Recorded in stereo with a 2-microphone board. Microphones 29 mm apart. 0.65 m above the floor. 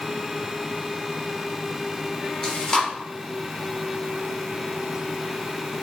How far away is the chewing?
About 0.9 m.